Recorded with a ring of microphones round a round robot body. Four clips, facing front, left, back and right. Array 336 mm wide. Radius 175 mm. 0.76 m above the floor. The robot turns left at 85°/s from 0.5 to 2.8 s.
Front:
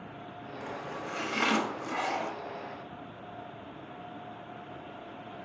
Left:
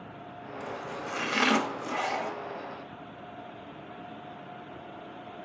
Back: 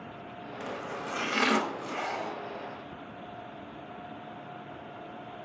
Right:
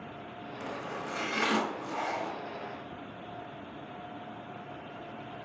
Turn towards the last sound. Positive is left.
turn(degrees=0)